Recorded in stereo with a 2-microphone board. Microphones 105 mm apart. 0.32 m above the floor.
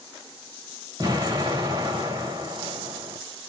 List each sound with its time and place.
1.0 s an explosion: 40° right (ahead or behind), 1.7 m